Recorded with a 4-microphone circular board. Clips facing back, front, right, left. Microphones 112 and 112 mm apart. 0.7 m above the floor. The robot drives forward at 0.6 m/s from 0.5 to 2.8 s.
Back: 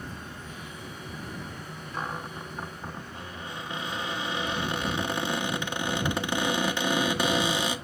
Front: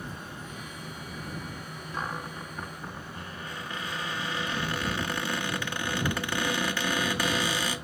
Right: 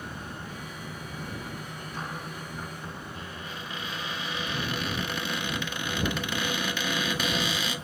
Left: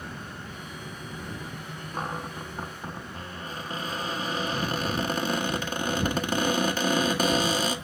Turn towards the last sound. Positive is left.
turn(degrees=120)